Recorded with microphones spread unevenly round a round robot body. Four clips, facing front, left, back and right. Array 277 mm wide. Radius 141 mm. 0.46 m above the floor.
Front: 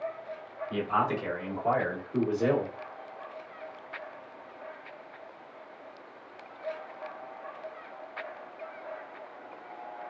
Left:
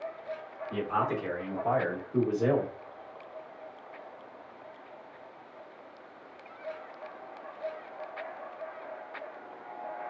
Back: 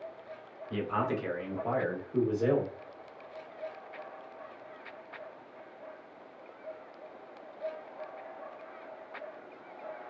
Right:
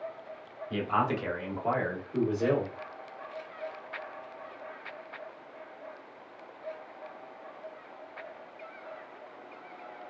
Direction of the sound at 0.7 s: 105° right.